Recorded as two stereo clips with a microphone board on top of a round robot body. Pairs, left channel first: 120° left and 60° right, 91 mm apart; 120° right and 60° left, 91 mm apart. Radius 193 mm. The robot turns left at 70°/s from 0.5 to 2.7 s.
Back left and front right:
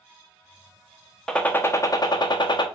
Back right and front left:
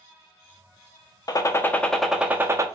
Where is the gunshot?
155° right, 0.8 m; by 2.7 s 105° left, 0.8 m.